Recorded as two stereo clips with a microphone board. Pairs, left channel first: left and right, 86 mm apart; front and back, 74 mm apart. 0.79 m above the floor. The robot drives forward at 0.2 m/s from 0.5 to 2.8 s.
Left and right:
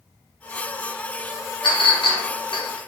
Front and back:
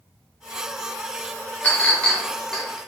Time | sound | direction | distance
1.6 | a clink | 70° left | 0.7 m